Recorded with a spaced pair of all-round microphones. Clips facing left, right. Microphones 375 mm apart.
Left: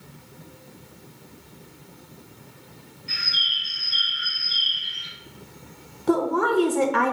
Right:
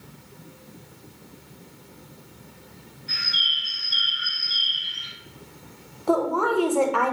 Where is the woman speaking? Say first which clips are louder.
Left 1 dB; 30° left (ahead or behind), 0.6 m.